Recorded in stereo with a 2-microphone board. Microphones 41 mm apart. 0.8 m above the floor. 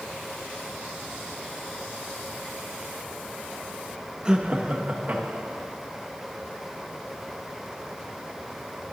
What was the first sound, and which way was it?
Laughter, 20° right (ahead or behind).